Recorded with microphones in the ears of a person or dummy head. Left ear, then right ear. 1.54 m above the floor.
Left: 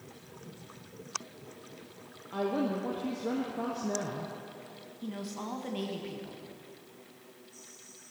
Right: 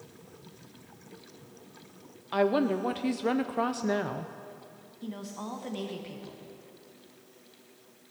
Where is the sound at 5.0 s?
Centre (ahead or behind), 1.3 m.